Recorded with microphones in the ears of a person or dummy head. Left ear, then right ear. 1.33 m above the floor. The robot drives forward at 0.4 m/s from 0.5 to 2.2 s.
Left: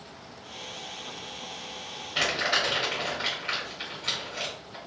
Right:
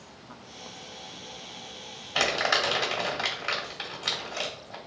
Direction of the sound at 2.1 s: 40° right (ahead or behind).